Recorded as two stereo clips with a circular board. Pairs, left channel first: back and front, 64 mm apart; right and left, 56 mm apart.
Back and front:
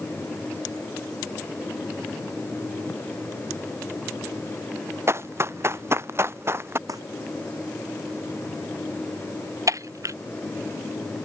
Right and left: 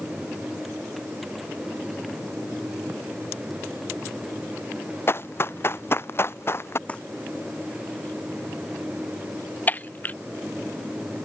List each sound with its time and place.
5.1 s running footsteps: 45° right
6.9 s crumpling: 25° right
9.7 s breaking glass: 30° right